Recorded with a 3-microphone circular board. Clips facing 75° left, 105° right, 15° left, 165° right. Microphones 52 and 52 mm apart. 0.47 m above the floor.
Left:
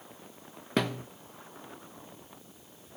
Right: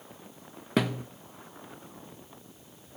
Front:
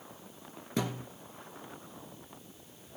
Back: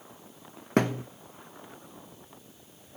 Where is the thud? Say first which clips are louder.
Right 2 dB, back 9 dB; 165° left, 0.8 m.